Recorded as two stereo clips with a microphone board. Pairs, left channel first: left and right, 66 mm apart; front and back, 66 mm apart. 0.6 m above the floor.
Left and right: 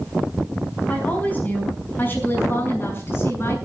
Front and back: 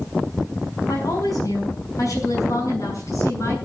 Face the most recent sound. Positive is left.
turn(degrees=40)